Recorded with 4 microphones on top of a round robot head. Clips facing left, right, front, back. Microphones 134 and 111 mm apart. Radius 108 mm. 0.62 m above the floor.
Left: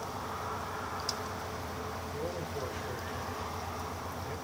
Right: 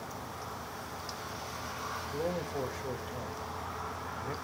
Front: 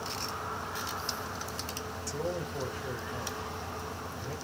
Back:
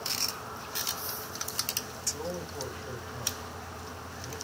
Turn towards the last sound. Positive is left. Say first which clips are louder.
# right 5 dB, front 2 dB
turn(degrees=-55)